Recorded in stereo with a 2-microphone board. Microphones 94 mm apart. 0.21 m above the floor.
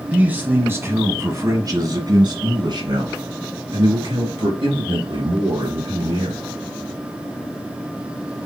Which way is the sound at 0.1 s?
15° right (ahead or behind).